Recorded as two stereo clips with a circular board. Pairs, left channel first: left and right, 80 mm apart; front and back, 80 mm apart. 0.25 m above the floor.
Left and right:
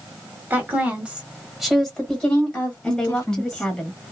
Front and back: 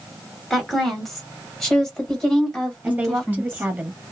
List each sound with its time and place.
0.5 s a woman speaking: 90° right, 1.5 m; by 3.7 s 70° left, 1.7 m
2.8 s a woman speaking: 155° left, 0.9 m